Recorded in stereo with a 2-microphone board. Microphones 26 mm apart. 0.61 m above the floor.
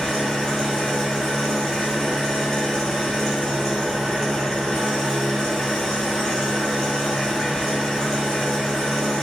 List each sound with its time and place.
0.0 s an engine running: 10° left (ahead or behind), 1.9 m